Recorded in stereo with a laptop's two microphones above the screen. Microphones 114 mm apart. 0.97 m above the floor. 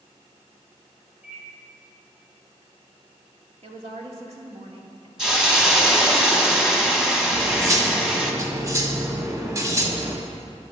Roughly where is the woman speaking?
Right.